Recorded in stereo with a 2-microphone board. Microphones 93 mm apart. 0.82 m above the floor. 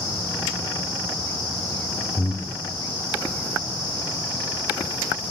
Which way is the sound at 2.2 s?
30° left (ahead or behind).